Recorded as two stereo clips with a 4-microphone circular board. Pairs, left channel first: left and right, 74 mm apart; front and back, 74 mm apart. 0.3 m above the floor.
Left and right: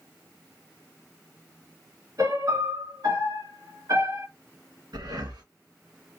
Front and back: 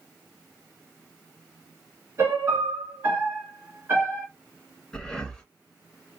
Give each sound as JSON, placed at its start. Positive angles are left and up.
{"t": 2.2, "sound": "a piano", "azimuth_deg": -125, "distance_m": 2.0}
{"t": 4.9, "sound": "breathing", "azimuth_deg": -85, "distance_m": 2.0}